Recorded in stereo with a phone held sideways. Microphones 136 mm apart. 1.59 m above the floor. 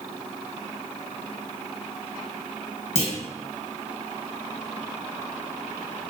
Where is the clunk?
55° left (ahead or behind), 1.0 m.